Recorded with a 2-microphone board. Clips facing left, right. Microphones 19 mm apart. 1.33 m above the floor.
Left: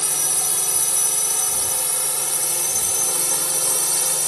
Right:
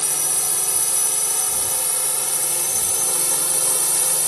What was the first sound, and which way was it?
A drone, 15° left (ahead or behind).